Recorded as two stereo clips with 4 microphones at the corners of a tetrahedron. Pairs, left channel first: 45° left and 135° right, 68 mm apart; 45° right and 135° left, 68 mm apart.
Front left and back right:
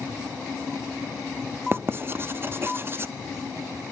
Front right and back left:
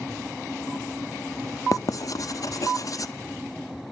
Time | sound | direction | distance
1.7 | writing | 80° right | 0.5 m